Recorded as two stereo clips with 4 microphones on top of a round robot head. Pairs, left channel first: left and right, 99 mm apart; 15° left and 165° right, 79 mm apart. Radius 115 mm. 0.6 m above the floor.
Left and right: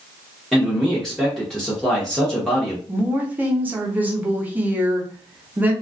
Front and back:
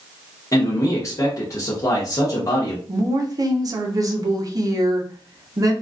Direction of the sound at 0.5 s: 5° left.